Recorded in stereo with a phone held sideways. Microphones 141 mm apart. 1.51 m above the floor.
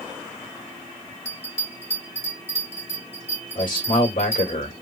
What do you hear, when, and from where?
1.2 s a bell: 55° left (ahead or behind), 2.0 m
3.5 s a man speaking: 75° left (ahead or behind), 1.6 m